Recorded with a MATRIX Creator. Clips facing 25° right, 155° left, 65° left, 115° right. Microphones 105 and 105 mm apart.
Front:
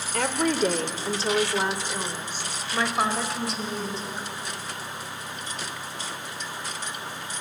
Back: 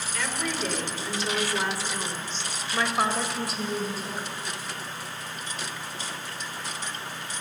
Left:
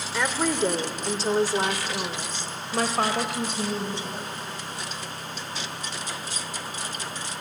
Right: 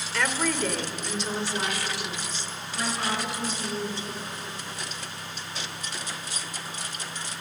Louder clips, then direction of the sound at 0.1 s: Front 8 dB, left 2 dB; 5° right.